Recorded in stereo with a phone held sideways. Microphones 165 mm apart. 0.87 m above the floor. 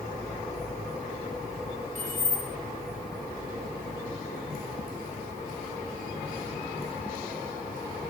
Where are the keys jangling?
50° right (ahead or behind), 6 m.